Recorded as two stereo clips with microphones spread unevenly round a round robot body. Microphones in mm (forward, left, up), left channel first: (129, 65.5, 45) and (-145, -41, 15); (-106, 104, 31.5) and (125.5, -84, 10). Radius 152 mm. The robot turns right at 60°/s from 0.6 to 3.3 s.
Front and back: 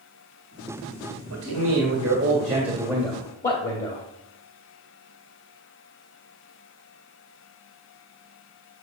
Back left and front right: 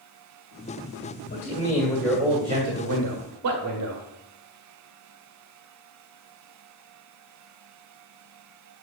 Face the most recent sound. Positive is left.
turn(degrees=-40)